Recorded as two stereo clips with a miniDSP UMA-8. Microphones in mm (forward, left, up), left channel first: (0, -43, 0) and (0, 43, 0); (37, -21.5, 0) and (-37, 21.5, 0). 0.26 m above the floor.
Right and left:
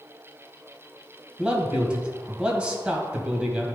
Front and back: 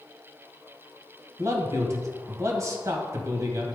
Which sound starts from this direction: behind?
A man speaking, at 1.4 s.